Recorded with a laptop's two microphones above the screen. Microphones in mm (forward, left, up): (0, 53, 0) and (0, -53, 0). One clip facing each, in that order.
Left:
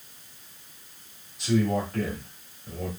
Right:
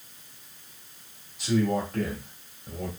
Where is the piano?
I don't hear a piano.